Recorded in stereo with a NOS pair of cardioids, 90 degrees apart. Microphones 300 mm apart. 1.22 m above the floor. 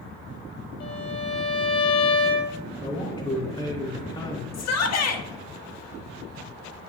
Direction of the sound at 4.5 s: 60° left.